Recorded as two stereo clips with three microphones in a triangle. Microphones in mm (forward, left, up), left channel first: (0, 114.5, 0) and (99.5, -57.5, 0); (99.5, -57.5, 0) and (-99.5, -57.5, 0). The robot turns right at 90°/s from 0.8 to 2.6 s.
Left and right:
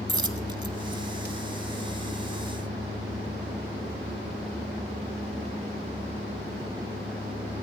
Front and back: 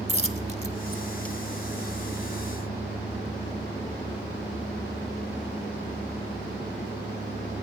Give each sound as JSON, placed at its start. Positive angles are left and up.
{"t": 0.1, "sound": "a dropped coin", "azimuth_deg": -125, "distance_m": 0.6}